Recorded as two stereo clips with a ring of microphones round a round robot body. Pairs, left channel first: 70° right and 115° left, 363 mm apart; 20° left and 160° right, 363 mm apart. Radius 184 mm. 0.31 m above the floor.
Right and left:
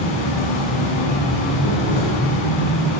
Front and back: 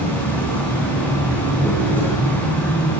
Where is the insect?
65° right, 3 m.